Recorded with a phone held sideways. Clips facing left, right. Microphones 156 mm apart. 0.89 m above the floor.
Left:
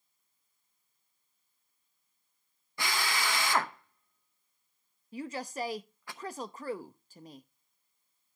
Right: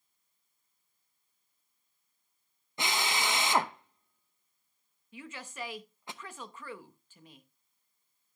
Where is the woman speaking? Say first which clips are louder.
Left 8 dB; 40° left (ahead or behind), 0.6 m.